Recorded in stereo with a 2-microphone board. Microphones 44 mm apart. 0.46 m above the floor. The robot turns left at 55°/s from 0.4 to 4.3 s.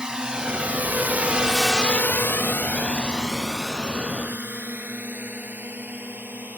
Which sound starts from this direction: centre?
A drone, at 0.0 s.